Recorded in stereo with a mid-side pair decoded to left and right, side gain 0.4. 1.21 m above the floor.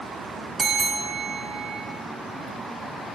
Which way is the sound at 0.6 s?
50° right.